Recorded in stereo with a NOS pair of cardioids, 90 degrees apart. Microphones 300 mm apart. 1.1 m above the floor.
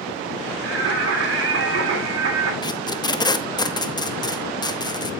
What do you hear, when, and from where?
0.6 s singing: 50° right, 3 m
2.6 s tape being pulled: 15° left, 1.0 m